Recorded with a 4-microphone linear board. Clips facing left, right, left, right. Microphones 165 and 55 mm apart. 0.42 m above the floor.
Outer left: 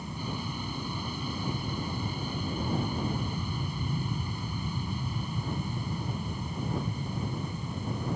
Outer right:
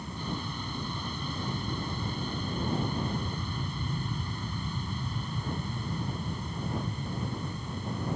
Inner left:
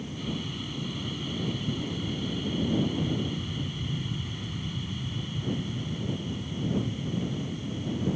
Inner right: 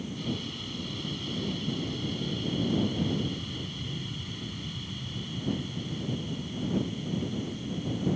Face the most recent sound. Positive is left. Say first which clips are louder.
# even, even
turn(degrees=10)  # may be behind; listen again after turning